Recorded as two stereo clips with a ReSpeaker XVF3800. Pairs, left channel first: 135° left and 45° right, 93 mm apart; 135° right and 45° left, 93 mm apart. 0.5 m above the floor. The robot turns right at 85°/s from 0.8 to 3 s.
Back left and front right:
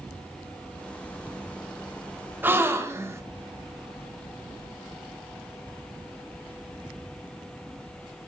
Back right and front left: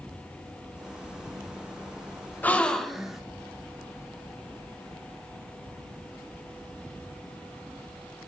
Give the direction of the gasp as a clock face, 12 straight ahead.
3 o'clock.